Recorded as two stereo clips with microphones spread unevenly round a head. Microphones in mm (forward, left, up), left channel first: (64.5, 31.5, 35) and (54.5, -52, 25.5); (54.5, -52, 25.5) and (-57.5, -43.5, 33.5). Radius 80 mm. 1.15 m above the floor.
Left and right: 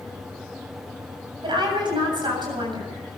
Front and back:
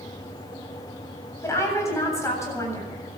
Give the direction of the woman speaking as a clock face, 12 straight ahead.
2 o'clock.